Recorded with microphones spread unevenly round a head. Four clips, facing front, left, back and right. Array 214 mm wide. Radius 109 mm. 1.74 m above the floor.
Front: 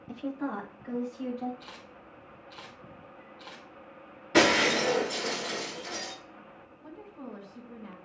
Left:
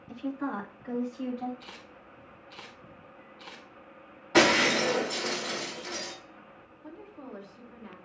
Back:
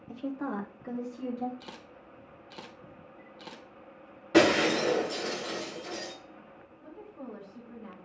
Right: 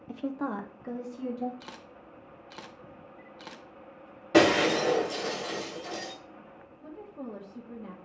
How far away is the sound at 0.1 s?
About 0.7 m.